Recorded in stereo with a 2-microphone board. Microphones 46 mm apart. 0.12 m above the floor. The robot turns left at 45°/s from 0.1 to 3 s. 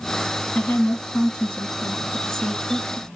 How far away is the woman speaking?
About 1.4 m.